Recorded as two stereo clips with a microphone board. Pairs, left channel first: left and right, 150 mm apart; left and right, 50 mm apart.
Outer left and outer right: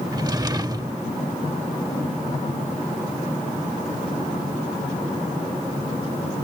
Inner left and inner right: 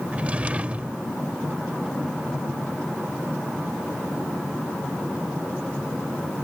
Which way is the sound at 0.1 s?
25° right (ahead or behind).